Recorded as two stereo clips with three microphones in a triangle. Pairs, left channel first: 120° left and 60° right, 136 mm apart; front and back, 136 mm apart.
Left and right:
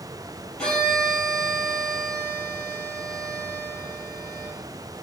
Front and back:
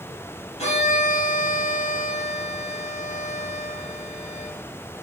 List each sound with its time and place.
0.6 s a violin: 35° left, 3 m